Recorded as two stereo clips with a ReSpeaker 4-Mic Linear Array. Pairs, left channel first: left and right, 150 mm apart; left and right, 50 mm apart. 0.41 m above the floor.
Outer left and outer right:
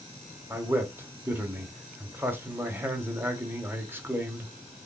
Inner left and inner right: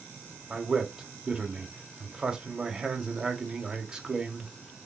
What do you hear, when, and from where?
0.5 s a man speaking: 15° right (ahead or behind), 0.9 m